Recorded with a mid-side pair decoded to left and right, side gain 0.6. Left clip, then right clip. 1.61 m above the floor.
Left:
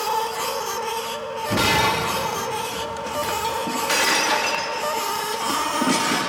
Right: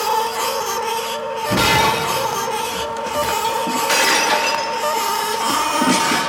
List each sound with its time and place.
0.0 s a machine running: 25° right, 0.8 m
1.5 s breaking glass: 20° right, 2 m